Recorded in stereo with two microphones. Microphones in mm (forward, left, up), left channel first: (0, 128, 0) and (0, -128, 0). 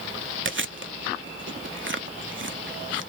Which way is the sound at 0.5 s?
50° right (ahead or behind).